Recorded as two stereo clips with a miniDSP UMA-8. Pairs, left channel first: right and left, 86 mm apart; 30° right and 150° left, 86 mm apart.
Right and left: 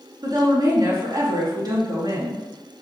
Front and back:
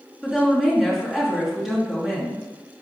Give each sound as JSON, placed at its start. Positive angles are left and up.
{"t": 0.2, "sound": "a woman speaking", "azimuth_deg": 60, "distance_m": 3.0}